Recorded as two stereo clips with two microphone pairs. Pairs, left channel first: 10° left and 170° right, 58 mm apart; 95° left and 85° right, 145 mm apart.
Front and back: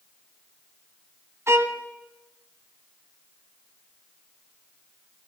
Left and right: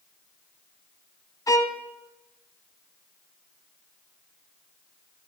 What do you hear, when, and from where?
1.5 s a violin: 165° left, 0.5 m